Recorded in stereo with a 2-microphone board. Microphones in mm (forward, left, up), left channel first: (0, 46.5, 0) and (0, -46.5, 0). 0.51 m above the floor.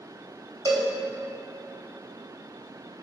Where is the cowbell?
45° right (ahead or behind), 1.7 m.